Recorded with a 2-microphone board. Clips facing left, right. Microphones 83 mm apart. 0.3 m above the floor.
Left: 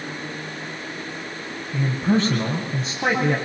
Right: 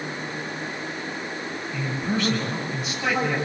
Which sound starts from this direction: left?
A man speaking, at 1.7 s.